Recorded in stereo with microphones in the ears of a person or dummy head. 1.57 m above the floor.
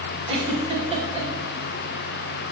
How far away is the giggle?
About 3 m.